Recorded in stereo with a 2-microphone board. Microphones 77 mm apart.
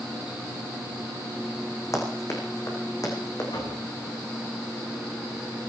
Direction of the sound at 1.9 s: 45° left (ahead or behind).